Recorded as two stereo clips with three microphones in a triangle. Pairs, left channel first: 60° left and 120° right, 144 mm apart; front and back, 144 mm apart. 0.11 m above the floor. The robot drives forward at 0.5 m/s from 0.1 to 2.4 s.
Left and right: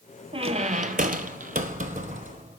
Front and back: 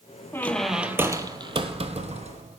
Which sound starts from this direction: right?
A squeak, at 0.3 s.